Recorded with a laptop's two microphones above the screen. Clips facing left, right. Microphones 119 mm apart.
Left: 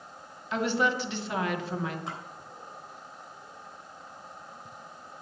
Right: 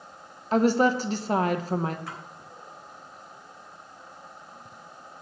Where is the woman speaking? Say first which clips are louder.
Right 6 dB; 40° right (ahead or behind), 0.8 m.